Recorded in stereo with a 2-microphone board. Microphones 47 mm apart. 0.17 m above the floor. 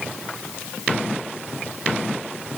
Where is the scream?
No scream in this recording.